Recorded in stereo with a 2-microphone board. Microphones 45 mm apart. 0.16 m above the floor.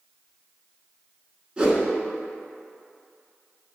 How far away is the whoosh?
About 1.4 m.